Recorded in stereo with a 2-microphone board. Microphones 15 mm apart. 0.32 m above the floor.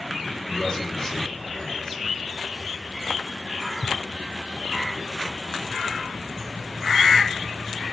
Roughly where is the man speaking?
Left.